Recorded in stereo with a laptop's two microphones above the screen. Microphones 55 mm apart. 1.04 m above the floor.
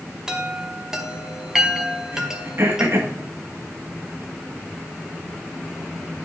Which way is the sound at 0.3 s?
10° right (ahead or behind).